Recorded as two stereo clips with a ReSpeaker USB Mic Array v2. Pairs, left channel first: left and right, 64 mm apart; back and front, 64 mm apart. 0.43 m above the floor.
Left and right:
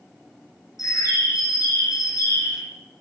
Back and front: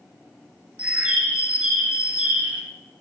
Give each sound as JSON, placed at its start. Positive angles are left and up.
{"t": 0.8, "sound": "a bird", "azimuth_deg": 70, "distance_m": 3.0}